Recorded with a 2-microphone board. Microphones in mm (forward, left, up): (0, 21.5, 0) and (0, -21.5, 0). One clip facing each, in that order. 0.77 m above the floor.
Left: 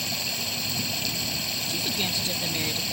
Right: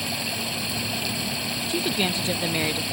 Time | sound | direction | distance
0.0 | running water | 10° right (ahead or behind) | ?
1.7 | a woman speaking | 25° right (ahead or behind) | ?